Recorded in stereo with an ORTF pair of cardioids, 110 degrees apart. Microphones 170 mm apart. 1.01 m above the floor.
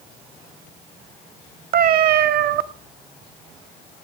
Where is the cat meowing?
60° right, 1.1 m.